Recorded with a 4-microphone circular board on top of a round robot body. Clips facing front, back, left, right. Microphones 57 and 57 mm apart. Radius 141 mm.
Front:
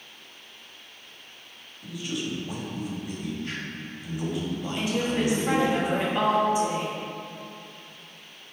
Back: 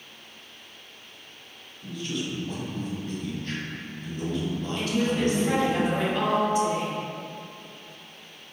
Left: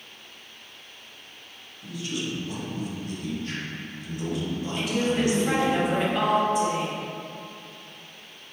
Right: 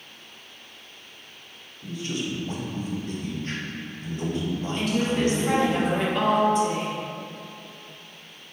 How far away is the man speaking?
About 1.3 m.